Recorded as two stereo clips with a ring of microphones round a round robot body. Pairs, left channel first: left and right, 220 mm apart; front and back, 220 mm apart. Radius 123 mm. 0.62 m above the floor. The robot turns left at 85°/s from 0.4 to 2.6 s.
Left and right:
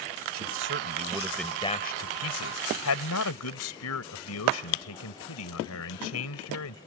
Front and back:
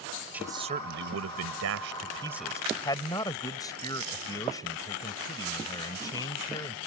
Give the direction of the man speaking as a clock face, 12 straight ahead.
3 o'clock.